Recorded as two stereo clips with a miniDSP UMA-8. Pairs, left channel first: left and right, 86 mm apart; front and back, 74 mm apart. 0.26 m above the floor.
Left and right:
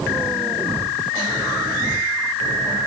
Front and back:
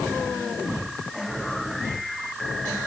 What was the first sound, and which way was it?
Only background noise.